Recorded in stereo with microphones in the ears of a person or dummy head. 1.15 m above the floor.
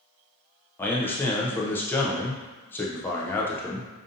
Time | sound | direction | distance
0.8 | a man speaking | 15° left (ahead or behind) | 0.6 m